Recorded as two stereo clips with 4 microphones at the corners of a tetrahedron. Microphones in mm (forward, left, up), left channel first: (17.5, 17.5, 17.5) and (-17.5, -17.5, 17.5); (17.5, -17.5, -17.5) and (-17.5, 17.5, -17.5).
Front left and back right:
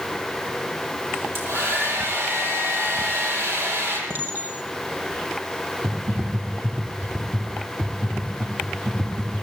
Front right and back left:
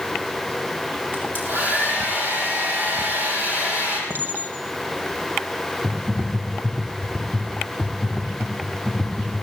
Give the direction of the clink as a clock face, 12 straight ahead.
6 o'clock.